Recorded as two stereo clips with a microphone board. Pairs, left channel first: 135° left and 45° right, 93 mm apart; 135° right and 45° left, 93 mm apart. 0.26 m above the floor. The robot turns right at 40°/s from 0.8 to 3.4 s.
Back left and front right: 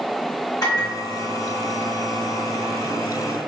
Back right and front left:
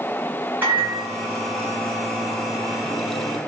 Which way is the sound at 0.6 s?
105° left.